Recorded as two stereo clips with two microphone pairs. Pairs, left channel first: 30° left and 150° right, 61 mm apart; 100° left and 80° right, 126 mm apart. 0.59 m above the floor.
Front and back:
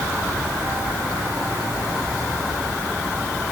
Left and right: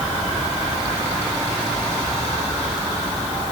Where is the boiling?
No boiling in this recording.